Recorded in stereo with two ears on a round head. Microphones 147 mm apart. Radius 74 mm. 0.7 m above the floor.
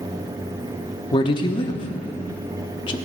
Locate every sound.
1.1 s a man speaking: 30° left (ahead or behind), 1.1 m